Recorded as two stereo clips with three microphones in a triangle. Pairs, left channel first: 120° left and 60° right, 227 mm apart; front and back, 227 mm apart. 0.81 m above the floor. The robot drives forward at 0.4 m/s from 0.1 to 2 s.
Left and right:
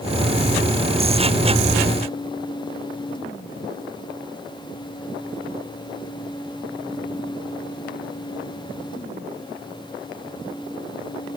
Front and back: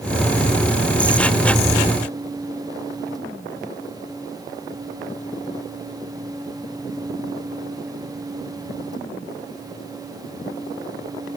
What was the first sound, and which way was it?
Only background noise.